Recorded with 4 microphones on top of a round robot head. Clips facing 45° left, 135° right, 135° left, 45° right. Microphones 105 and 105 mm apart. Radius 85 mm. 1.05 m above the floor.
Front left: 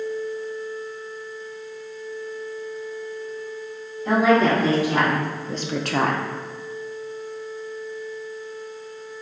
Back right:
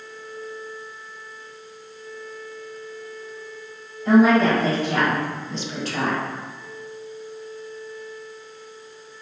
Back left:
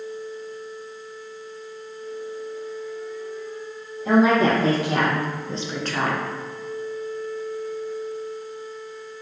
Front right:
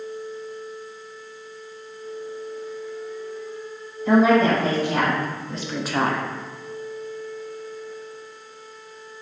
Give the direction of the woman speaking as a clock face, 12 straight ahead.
8 o'clock.